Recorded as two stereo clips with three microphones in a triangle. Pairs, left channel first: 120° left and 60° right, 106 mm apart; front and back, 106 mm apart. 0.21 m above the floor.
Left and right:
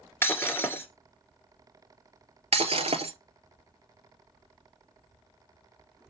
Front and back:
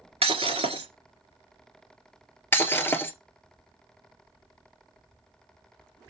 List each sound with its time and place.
0.2 s breaking glass: 175° right, 1.6 m
2.5 s breaking glass: 70° right, 1.2 m